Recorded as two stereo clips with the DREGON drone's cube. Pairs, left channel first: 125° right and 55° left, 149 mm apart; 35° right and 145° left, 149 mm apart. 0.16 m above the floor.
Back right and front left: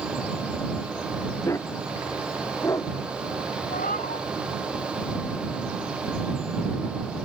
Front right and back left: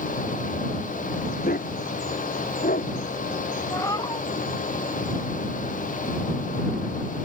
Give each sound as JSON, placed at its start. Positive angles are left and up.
{"t": 1.4, "sound": "a dog barking", "azimuth_deg": -55}
{"t": 3.7, "sound": "a cat meowing", "azimuth_deg": -100}